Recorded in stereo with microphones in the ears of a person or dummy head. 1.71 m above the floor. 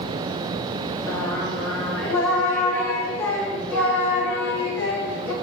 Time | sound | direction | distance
1.1 | singing | 10° left (ahead or behind) | 4.5 m